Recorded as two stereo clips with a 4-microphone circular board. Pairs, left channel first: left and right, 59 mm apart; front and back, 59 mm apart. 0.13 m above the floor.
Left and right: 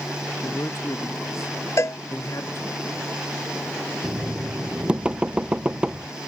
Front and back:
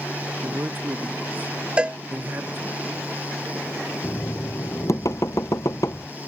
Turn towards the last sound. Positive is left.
turn(degrees=-20)